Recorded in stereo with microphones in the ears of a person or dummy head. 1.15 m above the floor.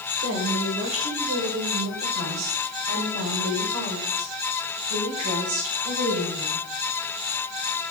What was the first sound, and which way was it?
A woman speaking, 55° right (ahead or behind).